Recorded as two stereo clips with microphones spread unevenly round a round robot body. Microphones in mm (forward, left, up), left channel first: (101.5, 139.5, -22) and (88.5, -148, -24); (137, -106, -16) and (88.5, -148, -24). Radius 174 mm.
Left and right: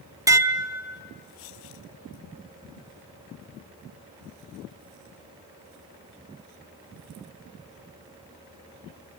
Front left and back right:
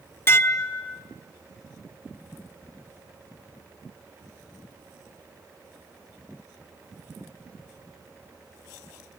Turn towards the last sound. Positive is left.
turn(degrees=-15)